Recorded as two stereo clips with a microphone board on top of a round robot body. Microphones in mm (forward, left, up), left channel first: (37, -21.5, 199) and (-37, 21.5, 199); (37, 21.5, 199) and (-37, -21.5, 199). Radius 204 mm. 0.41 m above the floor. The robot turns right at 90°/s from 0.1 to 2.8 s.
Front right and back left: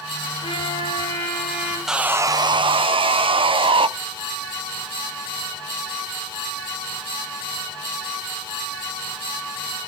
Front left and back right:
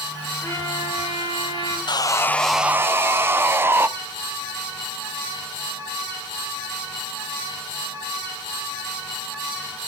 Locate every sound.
0.4 s a trumpet: 35° right, 8.5 m; by 1.8 s 90° left, 8.5 m
1.9 s sawing: 65° left, 0.7 m; by 3.9 s 145° left, 0.7 m